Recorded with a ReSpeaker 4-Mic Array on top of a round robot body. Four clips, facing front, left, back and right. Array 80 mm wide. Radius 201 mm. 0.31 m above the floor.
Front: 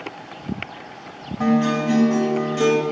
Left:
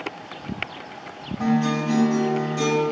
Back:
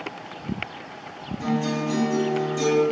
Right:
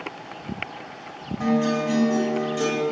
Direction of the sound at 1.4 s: 5° right.